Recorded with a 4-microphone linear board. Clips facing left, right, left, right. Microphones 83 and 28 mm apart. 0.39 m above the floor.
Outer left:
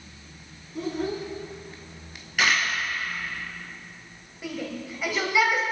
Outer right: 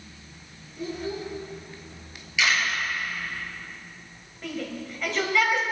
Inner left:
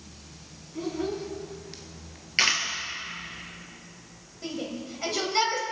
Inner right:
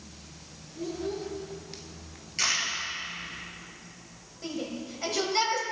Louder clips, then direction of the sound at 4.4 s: Even, inner left 1 dB; 10° left (ahead or behind).